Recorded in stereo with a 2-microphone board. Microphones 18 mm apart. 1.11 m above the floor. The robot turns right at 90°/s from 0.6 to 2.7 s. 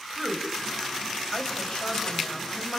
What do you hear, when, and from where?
0.2 s a woman speaking: 35° right (ahead or behind), 5 m; by 2.8 s 30° left (ahead or behind), 5 m